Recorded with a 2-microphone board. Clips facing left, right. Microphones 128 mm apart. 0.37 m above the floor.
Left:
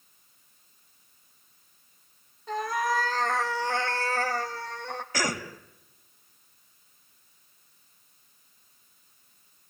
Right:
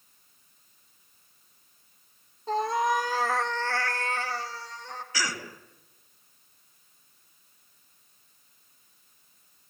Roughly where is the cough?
Left.